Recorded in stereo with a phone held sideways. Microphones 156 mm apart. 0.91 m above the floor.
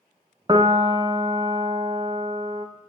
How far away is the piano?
About 0.5 m.